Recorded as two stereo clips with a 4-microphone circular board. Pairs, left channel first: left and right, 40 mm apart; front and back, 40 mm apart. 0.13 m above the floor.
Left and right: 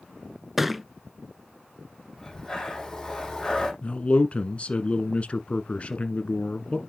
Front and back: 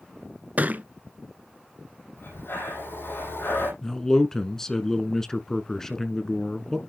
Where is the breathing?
10° left, 6 m.